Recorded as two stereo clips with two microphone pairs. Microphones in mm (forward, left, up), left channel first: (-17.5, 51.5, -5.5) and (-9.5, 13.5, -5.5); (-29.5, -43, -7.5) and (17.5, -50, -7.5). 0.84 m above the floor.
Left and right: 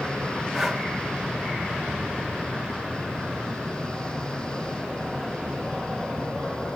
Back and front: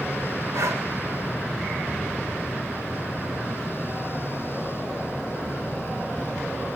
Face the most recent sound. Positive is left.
turn(degrees=5)